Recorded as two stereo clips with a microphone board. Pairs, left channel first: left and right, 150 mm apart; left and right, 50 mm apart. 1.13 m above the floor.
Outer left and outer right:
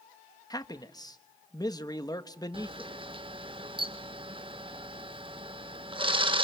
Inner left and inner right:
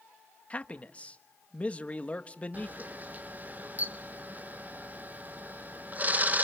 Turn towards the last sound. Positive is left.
turn(degrees=-35)  # may be behind; listen again after turning